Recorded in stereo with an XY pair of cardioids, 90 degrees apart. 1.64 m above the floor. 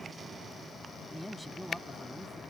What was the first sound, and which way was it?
A man speaking, 5° right.